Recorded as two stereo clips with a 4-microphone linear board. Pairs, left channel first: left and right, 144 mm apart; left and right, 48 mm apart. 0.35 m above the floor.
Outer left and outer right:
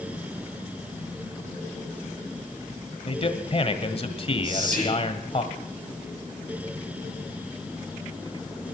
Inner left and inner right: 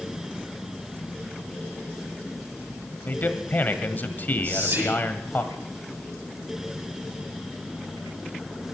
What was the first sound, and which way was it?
A man speaking, 40° left (ahead or behind).